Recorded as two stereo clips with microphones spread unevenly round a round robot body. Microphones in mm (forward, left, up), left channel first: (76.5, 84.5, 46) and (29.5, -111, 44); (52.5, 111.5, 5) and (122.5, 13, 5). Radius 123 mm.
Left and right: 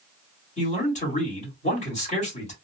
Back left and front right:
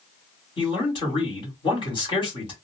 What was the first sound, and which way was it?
A man speaking, 115° left.